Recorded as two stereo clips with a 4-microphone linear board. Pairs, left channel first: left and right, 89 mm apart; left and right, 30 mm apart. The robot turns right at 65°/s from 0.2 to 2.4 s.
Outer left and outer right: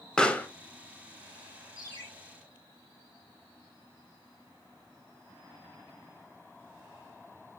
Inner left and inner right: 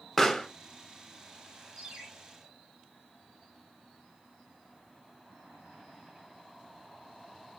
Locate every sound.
0.2 s a pop: 10° left (ahead or behind), 0.6 m; by 0.5 s 20° left (ahead or behind), 0.6 m
1.8 s a ringtone: 55° right (ahead or behind), 2.5 m; by 2.1 s 35° right (ahead or behind), 2.5 m